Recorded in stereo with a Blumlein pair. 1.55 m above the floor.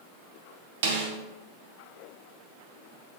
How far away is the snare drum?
About 0.6 m.